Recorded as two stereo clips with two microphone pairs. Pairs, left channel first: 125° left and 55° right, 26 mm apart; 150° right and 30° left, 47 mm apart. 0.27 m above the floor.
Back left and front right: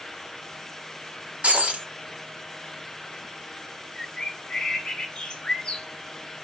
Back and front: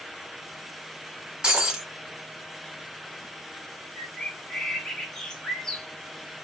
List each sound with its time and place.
1.4 s breaking glass: 40° right, 1.3 m
4.0 s a bird: 140° left, 0.9 m